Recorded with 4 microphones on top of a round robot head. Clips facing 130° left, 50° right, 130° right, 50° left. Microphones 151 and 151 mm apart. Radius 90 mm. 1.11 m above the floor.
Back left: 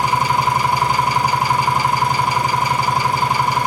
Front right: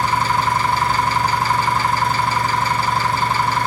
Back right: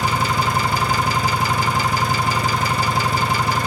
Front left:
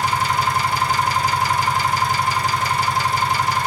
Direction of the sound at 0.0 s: 150° right.